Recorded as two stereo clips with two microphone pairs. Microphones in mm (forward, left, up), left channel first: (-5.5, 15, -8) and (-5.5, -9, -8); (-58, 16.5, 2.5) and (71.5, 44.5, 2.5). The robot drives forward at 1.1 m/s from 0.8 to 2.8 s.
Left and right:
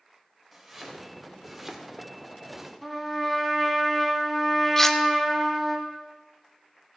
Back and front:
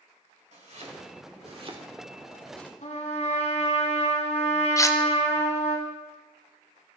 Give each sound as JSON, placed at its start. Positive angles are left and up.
{"t": 0.5, "sound": "chopping", "azimuth_deg": -5, "distance_m": 2.0}
{"t": 2.8, "sound": "a trumpet", "azimuth_deg": 170, "distance_m": 2.5}
{"t": 4.8, "sound": "cutlery clinking", "azimuth_deg": 145, "distance_m": 0.6}